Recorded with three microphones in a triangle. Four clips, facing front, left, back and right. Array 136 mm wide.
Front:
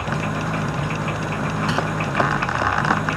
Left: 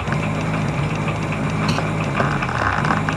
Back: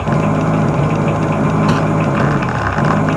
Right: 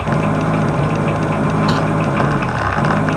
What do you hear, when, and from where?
0.0 s an engine running: 155° right
1.7 s crumpling: 165° right